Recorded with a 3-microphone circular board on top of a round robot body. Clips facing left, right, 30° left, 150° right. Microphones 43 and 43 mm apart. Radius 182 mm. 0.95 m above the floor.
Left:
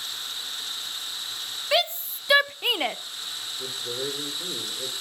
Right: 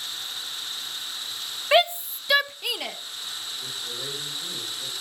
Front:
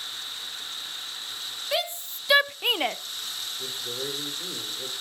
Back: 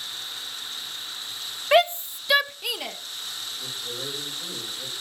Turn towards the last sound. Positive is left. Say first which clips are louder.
# left 6 dB, front 1 dB
turn(degrees=85)